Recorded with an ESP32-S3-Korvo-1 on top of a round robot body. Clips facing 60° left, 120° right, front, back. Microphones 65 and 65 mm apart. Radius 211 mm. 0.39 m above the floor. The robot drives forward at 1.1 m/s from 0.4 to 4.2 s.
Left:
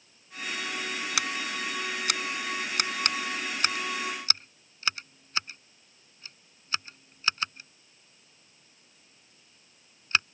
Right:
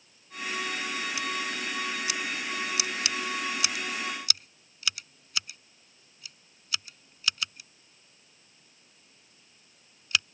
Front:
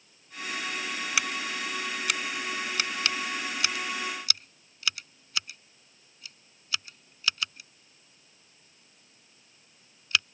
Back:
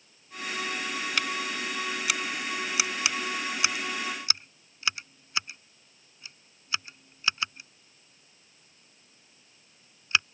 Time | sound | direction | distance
1.2 | scissors | 85° left | ?